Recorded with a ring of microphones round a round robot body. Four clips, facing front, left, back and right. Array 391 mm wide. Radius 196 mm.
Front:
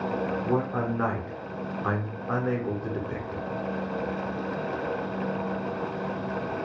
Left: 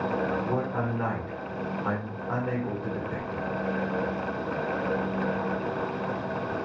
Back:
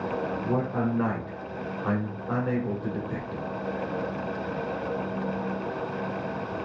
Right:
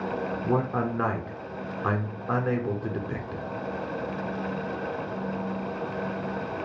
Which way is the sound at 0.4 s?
70° right.